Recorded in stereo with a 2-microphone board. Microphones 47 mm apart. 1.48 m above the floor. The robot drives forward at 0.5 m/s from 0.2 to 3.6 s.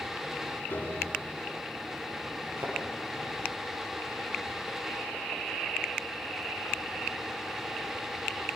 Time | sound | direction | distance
0.7 | a piano | 50° left (ahead or behind) | 7.5 m
2.6 | a thud | 60° right (ahead or behind) | 9.5 m